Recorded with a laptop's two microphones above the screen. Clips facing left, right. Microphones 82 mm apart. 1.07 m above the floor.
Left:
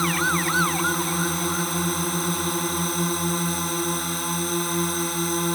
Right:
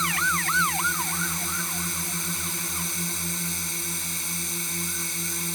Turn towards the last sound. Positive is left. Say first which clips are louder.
# left 3 dB
turn(degrees=50)  # may be behind; listen again after turning